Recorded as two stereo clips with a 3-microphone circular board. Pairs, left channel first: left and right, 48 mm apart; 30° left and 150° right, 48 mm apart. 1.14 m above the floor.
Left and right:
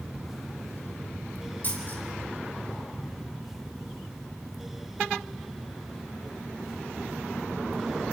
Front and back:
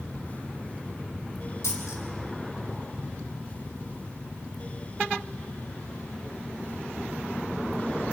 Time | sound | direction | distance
1.6 | a dropped coin | 40° left | 5 m